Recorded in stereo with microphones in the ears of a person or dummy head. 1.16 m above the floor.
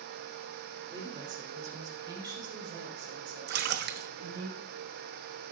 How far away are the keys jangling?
No keys jangling in this recording.